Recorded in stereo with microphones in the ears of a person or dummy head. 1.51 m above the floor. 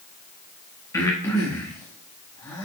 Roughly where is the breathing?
Centre.